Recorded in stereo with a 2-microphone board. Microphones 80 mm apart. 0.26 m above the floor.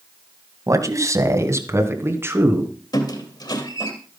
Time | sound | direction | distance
0.7 | a man speaking | 45° right (ahead or behind) | 1.8 m
2.9 | a squeak | 60° left (ahead or behind) | 2.5 m